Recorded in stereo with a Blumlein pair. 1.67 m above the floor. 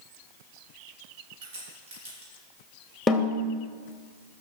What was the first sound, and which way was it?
A crack, 55° right.